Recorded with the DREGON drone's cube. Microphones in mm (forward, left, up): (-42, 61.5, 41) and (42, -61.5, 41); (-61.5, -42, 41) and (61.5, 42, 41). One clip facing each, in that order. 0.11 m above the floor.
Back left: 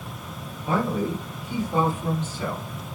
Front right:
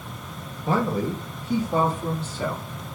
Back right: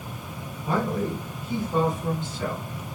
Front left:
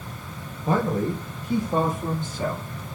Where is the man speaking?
5° right, 3.5 m.